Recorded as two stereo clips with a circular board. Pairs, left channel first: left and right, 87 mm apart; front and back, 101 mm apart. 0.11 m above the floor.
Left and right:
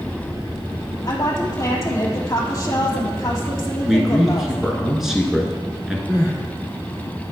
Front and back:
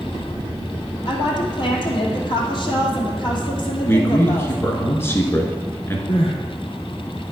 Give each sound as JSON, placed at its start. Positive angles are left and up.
{"t": 1.1, "sound": "a woman speaking", "azimuth_deg": 35, "distance_m": 2.5}
{"t": 3.9, "sound": "a man speaking", "azimuth_deg": -10, "distance_m": 1.6}
{"t": 6.1, "sound": "crying", "azimuth_deg": -30, "distance_m": 2.0}